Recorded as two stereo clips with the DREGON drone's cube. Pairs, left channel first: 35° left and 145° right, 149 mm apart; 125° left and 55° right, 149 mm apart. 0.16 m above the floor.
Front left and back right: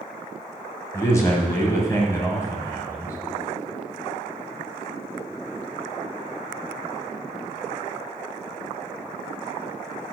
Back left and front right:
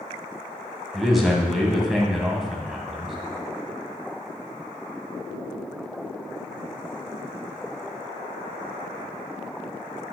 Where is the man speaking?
30° left, 1.6 m.